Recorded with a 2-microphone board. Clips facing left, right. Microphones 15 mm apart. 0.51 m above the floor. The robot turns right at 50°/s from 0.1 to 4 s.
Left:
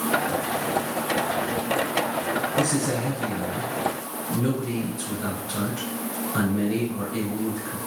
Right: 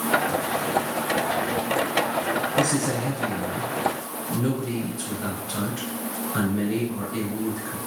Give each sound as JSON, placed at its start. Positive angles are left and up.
{"t": 2.6, "sound": "a man speaking", "azimuth_deg": -75, "distance_m": 3.0}